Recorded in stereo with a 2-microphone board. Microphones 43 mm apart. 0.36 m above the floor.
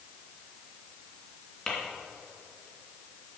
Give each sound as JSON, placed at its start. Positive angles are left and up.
{"t": 1.7, "sound": "tapping", "side_deg": 5, "distance_m": 3.0}